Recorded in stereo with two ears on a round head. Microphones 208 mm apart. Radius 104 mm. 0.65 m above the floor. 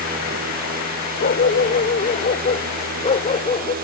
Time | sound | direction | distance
1.2 | a dog barking | 40° left (ahead or behind) | ?